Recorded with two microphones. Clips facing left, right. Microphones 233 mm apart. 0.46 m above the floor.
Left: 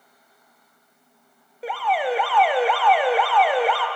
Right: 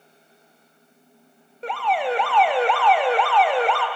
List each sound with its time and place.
1.6 s an alarm: 5° left (ahead or behind), 0.6 m